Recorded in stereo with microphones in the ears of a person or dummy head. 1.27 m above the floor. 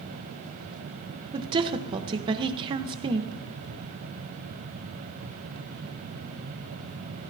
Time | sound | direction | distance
1.3 | a woman speaking | 30° right (ahead or behind) | 1.1 m